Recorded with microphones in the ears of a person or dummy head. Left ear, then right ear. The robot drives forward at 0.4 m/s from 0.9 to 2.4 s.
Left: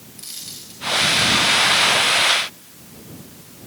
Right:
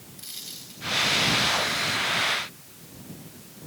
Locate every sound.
0.2 s a dropped coin: 10° right (ahead or behind), 4 m